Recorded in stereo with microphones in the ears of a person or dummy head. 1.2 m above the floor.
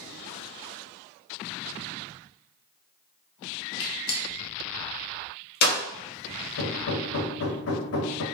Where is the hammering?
65° left (ahead or behind), 1.7 m.